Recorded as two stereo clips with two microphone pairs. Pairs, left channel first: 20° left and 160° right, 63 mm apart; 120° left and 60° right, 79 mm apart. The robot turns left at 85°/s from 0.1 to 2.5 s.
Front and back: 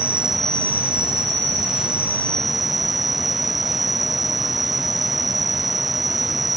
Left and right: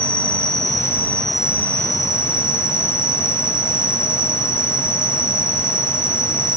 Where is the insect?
135° left; by 6.6 s 70° right.